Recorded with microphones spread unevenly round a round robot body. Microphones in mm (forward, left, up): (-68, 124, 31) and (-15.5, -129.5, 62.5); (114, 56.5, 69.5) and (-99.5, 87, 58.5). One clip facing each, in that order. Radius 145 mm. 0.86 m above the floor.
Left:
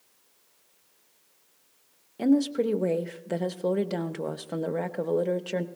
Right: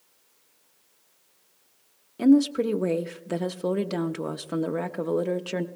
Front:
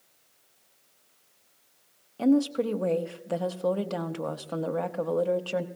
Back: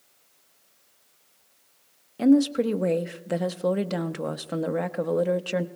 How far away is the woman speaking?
About 0.8 m.